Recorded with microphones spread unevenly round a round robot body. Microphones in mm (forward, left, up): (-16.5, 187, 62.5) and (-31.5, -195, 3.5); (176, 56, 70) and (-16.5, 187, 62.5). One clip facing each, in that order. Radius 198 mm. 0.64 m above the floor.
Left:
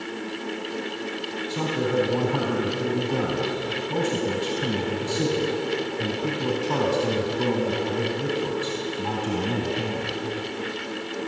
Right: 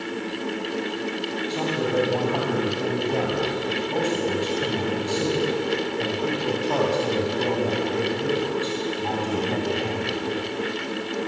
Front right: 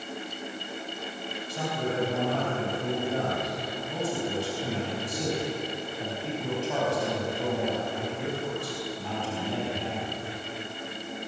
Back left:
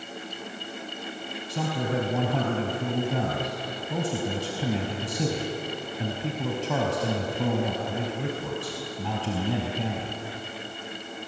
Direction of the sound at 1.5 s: 155° left.